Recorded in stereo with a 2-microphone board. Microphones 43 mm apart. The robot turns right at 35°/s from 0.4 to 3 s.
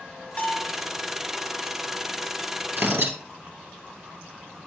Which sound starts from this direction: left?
A bell, at 0.4 s.